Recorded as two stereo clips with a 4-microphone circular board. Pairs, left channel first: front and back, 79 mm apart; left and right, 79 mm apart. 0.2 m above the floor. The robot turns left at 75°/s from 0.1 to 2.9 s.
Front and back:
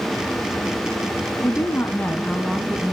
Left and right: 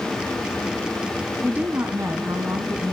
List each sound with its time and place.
1.4 s a woman speaking: 20° right, 1.5 m; by 2.9 s 130° right, 1.5 m